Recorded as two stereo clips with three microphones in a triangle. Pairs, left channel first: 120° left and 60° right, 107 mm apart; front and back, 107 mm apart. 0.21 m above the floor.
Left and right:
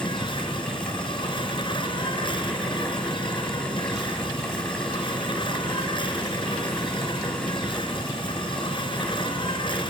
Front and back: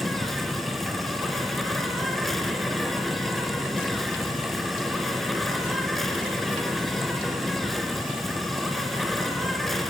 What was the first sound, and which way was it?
An insect, 90° left.